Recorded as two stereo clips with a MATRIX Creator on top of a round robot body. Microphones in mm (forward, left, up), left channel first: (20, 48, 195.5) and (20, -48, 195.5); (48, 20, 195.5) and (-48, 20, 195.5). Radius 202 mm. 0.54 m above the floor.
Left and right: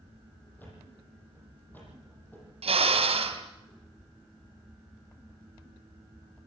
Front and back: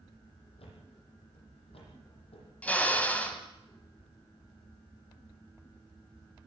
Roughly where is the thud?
Ahead.